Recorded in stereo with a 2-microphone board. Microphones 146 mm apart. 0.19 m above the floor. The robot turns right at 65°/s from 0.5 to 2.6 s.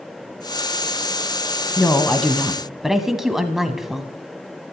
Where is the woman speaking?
15° left (ahead or behind), 1.0 m; by 4.1 s 5° right (ahead or behind), 1.0 m.